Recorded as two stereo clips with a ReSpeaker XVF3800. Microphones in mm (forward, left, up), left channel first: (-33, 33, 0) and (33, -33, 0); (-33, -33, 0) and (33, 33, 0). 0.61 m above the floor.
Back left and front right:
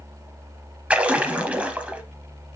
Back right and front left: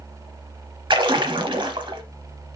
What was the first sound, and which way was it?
A splash, 30° left.